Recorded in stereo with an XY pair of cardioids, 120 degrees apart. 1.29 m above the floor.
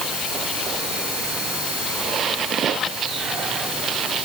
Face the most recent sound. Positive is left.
No sound to turn to.